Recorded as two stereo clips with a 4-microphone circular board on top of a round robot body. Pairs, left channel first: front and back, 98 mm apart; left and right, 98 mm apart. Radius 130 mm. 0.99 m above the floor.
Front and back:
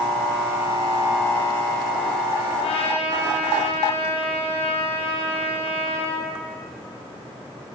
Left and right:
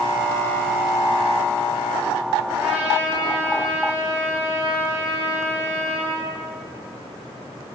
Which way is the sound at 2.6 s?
15° right.